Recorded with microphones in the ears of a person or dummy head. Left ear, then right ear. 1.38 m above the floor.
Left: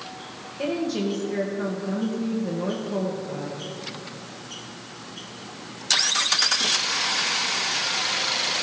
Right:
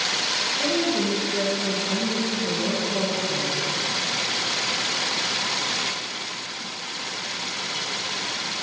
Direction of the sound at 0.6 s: 50° left (ahead or behind).